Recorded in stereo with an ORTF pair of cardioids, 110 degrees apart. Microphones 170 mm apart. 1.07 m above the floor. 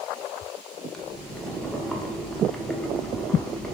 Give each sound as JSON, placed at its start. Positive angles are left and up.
{"t": 0.9, "sound": "boiling", "azimuth_deg": 5, "distance_m": 0.5}